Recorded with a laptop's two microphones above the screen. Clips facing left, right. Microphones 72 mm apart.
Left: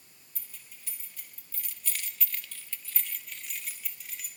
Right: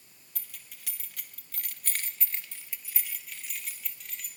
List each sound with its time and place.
0.3 s keys jangling: 70° right (ahead or behind), 1.2 m; by 4.3 s 5° left (ahead or behind), 2 m